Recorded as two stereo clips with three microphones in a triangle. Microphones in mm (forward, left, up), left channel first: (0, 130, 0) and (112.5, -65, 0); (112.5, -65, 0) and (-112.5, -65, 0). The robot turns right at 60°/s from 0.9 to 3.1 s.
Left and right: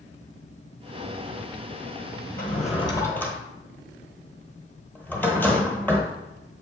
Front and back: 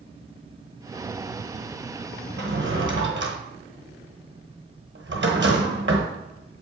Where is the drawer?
155° left, 0.9 m; by 6.1 s 160° right, 0.9 m.